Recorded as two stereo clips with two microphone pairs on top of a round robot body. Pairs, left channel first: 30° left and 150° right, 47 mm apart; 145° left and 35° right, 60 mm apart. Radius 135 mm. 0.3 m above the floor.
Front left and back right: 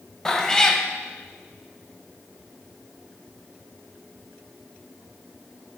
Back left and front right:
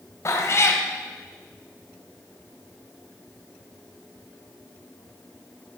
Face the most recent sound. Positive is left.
turn(degrees=105)